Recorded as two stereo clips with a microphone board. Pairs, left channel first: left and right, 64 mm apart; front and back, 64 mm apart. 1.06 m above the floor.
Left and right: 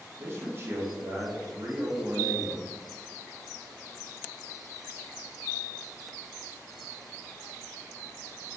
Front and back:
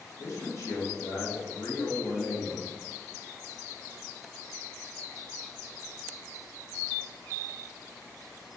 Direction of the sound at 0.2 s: 40° right.